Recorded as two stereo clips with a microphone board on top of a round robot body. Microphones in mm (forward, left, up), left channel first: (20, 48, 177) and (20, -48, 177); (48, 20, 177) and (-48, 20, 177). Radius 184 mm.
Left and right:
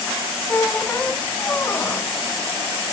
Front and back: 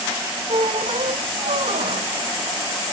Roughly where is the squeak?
Behind.